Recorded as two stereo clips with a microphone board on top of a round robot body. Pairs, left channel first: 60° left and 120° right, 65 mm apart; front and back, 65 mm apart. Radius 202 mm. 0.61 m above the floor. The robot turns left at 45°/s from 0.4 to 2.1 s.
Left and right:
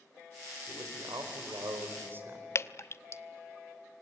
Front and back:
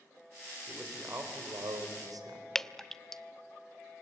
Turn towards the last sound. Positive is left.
turn(degrees=80)